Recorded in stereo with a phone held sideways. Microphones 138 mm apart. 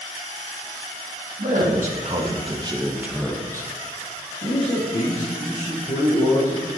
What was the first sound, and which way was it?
A man speaking, 65° right (ahead or behind).